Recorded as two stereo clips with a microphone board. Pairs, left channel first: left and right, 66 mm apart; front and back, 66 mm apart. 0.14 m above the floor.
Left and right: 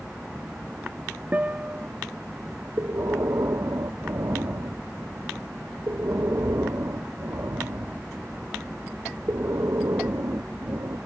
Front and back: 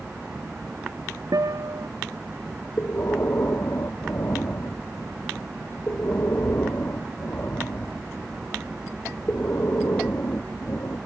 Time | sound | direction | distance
1.3 | a guitar | 160° right | ?
2.8 | breathing | 50° right | ?